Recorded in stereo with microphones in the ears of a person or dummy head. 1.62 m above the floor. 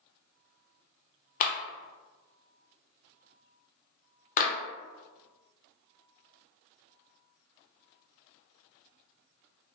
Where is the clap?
40° left (ahead or behind), 0.6 m.